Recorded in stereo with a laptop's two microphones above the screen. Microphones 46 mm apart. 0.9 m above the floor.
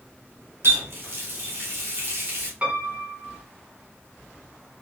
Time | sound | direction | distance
0.6 | a running tap | 70° right (ahead or behind) | 1.4 m
2.6 | a piano | 35° right (ahead or behind) | 2 m